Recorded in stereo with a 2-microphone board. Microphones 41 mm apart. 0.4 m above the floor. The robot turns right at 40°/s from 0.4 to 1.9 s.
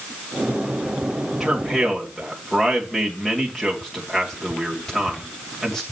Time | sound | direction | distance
1.4 | a man speaking | 5° right (ahead or behind) | 2 m